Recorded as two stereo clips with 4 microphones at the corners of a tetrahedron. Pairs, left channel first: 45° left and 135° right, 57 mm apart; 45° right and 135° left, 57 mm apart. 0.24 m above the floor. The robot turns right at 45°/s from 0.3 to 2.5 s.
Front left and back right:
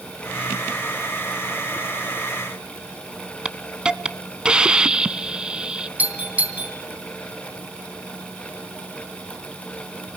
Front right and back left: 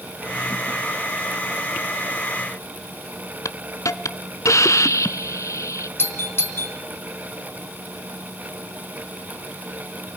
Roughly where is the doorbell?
Right.